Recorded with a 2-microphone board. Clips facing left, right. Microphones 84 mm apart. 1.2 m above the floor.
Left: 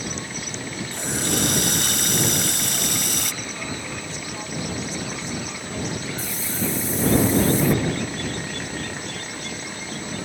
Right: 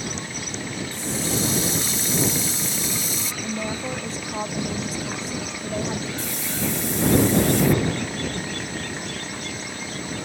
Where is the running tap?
70° left (ahead or behind).